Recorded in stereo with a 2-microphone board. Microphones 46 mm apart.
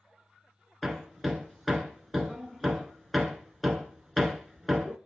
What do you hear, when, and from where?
0.8 s hammering: centre (ahead or behind), 1.8 m